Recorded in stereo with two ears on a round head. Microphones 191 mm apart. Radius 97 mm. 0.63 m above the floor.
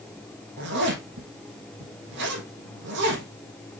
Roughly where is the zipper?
Right.